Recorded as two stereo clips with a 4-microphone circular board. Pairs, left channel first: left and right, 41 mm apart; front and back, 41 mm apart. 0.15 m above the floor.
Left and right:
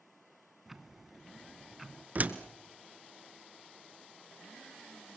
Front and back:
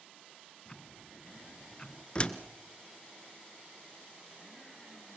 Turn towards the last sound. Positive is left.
turn(degrees=-55)